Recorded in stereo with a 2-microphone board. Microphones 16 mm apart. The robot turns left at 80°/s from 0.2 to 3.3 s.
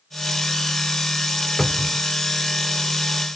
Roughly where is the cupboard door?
Ahead left.